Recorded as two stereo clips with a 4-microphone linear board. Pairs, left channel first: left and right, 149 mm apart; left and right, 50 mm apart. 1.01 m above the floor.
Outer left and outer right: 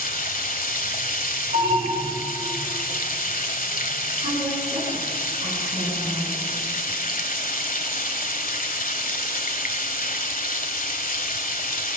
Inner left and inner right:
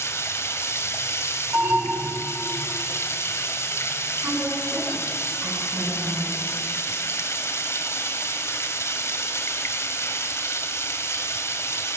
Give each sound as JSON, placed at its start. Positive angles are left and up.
{"t": 0.0, "sound": "running water", "side_deg": 70, "distance_m": 1.8}
{"t": 1.5, "sound": "an alarm", "side_deg": -75, "distance_m": 6.5}
{"t": 4.2, "sound": "a woman speaking", "side_deg": -45, "distance_m": 10.0}